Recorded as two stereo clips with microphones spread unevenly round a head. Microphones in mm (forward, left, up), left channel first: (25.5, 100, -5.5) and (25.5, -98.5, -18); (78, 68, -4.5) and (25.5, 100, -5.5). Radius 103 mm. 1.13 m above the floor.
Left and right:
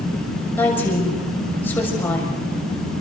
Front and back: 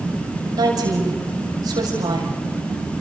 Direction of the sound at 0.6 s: 170° left.